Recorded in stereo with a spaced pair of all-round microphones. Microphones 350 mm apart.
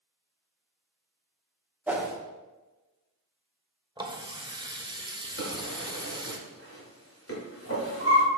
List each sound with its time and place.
1.9 s a whoosh: 5° right (ahead or behind), 1.0 m
4.0 s a running tap: 15° right (ahead or behind), 0.7 m
5.4 s a drawer: 40° left (ahead or behind), 2 m